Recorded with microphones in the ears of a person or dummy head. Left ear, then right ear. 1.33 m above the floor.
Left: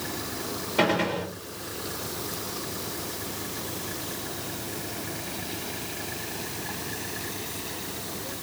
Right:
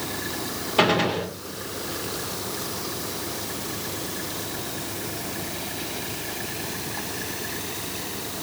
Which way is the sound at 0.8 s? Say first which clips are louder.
Right 4 dB; 15° right (ahead or behind).